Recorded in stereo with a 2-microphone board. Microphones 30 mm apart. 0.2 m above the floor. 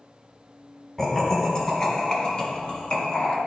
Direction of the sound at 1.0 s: 15° left (ahead or behind).